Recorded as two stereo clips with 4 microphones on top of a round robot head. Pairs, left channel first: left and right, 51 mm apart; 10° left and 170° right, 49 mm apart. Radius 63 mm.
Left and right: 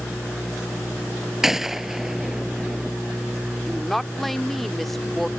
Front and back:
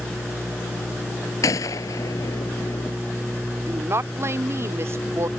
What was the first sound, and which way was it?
A gunshot, 5° right.